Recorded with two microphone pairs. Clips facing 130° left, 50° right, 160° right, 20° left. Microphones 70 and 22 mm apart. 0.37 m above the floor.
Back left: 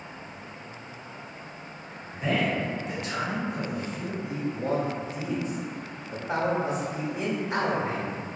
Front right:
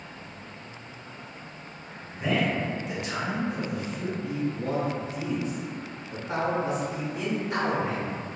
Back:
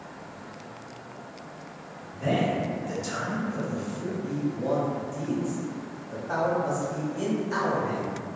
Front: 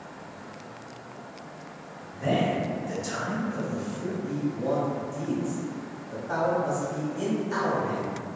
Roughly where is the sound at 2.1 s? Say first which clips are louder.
Even, even; behind right.